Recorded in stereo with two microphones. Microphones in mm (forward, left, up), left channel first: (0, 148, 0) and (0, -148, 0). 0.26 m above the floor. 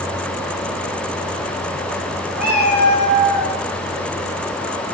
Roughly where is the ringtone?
No ringtone in this recording.